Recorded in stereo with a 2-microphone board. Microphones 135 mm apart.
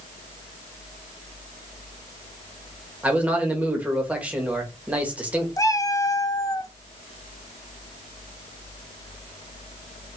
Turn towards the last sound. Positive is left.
turn(degrees=30)  # may be behind; listen again after turning